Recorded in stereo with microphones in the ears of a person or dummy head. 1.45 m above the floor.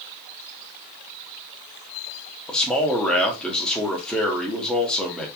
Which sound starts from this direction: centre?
A man speaking, at 2.5 s.